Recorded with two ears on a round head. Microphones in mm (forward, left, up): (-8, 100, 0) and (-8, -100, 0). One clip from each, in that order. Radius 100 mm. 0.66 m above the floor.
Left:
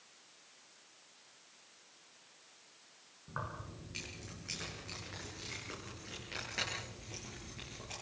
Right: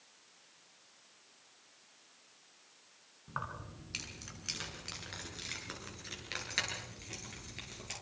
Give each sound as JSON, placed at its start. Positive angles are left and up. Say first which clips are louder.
{"t": 3.3, "sound": "keys jangling", "louder": "right 2 dB", "side_deg": -75, "distance_m": 5.5}